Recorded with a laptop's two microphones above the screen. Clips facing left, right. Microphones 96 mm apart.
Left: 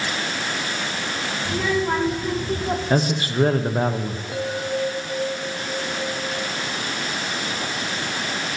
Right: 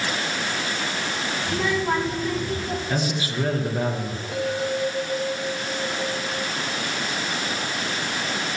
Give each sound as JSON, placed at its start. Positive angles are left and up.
{"t": 1.4, "sound": "a child speaking", "side_deg": 0, "distance_m": 1.9}
{"t": 2.9, "sound": "a man speaking", "side_deg": 45, "distance_m": 0.6}
{"t": 4.3, "sound": "a bell", "side_deg": 5, "distance_m": 0.5}